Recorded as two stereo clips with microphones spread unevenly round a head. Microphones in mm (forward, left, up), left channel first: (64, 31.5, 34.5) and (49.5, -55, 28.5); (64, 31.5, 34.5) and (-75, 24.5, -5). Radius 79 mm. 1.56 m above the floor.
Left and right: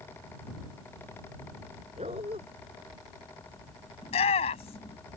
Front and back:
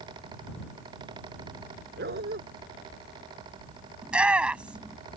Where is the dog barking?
145° right.